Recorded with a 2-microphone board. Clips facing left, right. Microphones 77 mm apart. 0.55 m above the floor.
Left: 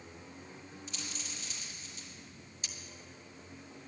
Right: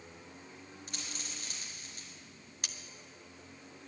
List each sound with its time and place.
0.9 s a dropped coin: 60° right (ahead or behind), 3.5 m
2.6 s cutlery clinking: 65° right (ahead or behind), 0.7 m